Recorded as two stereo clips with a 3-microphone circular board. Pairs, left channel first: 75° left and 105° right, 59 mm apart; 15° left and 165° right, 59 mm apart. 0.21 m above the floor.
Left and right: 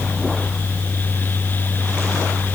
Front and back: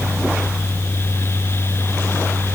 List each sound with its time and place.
Only background noise.